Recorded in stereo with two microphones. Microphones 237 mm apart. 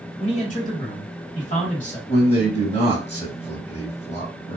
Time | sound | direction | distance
0.2 | a man speaking | 30° left (ahead or behind) | 1.8 m
2.1 | a man speaking | 25° left (ahead or behind) | 1.5 m